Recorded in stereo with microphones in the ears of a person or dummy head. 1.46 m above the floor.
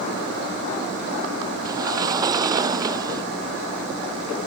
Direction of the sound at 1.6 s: 25° right (ahead or behind).